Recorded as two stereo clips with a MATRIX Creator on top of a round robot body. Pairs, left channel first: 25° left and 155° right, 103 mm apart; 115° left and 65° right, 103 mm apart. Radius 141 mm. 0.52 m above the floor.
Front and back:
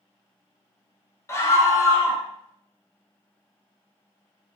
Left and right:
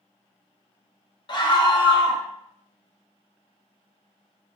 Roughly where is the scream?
Left.